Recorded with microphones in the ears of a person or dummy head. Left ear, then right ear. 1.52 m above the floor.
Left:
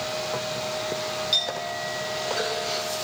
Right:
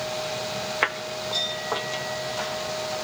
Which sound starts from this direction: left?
A clink, at 1.3 s.